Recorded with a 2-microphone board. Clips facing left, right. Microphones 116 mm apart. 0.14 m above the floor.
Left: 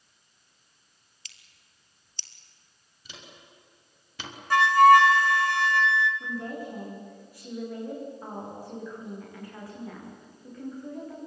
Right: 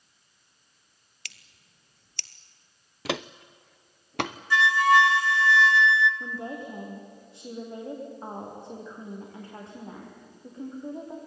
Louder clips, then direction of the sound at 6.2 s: Left 1 dB; 25° right (ahead or behind).